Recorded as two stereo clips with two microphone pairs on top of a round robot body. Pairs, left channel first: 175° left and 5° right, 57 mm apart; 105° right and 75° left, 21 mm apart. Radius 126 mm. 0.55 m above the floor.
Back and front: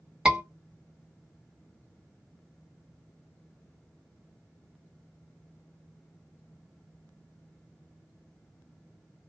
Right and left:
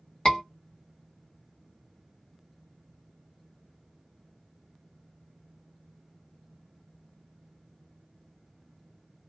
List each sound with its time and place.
0.2 s a scream: 75° right, 1.8 m